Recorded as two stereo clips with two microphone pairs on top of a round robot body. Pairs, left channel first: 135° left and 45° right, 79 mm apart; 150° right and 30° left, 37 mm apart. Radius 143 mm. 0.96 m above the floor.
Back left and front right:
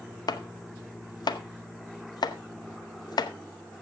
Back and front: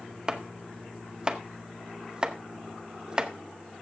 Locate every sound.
0.3 s chopping: 100° left, 0.9 m